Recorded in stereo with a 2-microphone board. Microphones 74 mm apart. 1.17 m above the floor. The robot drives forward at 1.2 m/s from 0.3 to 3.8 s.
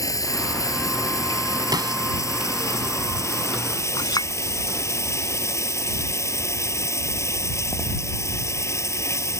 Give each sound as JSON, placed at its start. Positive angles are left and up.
{"t": 0.0, "sound": "running water", "side_deg": 50}
{"t": 1.7, "sound": "a snare drum", "side_deg": -60}
{"t": 4.0, "sound": "a clink", "side_deg": 60}